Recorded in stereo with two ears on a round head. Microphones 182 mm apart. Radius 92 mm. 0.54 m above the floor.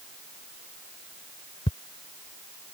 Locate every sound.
1.7 s ticking: 35° left (ahead or behind)